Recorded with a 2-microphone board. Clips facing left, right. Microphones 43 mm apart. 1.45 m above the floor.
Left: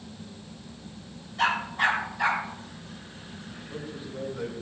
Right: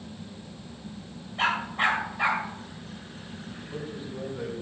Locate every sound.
1.4 s a dog barking: 35° right (ahead or behind), 3 m
3.6 s a man speaking: 25° right (ahead or behind), 6 m